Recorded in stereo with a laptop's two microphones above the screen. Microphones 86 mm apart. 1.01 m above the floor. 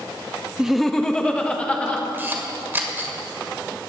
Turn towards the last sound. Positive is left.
turn(degrees=-25)  # may be behind; listen again after turning